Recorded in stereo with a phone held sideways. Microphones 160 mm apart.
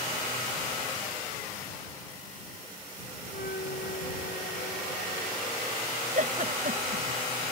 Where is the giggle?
55° right (ahead or behind).